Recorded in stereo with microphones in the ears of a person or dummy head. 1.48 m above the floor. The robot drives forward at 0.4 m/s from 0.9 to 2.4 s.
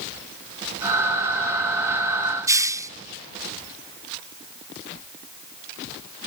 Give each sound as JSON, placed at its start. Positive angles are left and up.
{"t": 2.5, "sound": "a hiss", "side_deg": -15}